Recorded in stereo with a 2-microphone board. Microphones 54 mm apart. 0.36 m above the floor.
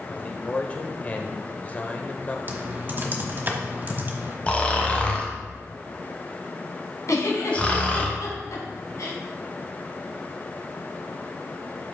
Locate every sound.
0.1 s a man speaking: 25° left (ahead or behind), 1.1 m
2.5 s typing on a keyboard: 35° right (ahead or behind), 1.3 m
4.5 s snoring: 25° left (ahead or behind), 1.3 m
7.1 s a giggle: 70° left (ahead or behind), 2 m